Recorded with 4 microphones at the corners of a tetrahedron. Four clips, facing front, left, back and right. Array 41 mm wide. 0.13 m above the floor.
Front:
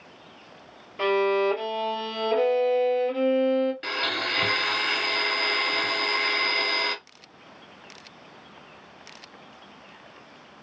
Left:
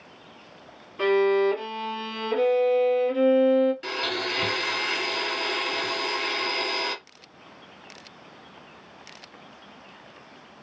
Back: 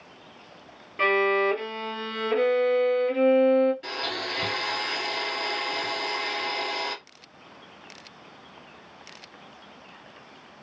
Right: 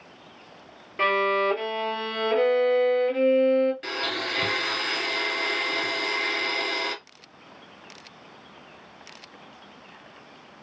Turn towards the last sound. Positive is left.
turn(degrees=-10)